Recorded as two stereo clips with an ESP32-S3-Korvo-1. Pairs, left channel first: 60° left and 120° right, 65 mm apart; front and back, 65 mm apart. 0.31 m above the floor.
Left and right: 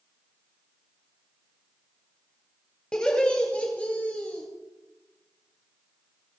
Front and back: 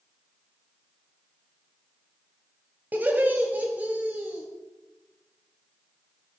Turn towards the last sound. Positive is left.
turn(degrees=120)